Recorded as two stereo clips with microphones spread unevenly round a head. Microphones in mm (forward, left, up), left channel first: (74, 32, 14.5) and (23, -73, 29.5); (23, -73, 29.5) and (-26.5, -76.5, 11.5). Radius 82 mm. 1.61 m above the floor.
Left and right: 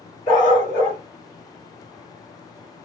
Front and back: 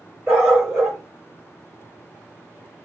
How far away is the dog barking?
About 1.4 m.